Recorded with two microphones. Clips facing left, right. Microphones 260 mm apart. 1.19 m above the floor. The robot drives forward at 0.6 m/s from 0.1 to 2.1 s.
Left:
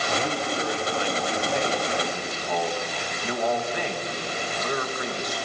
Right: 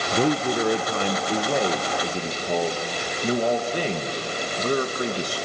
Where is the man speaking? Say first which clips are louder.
Right 8 dB; 65° right (ahead or behind), 0.9 m; by 5.5 s 35° right (ahead or behind), 1.5 m.